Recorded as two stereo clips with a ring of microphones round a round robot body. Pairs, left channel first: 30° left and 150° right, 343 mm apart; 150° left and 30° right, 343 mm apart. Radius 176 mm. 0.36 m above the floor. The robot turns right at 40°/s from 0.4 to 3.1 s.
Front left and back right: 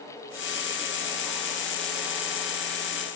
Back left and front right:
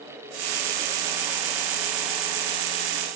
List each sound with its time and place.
Only background noise.